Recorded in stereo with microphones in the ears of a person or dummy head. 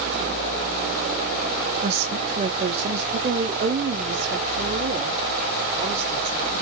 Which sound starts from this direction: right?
A woman speaking, at 1.8 s.